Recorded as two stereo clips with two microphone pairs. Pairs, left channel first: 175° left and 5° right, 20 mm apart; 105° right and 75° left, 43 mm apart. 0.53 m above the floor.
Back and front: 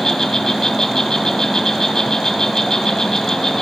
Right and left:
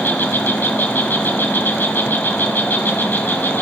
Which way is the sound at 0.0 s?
130° right.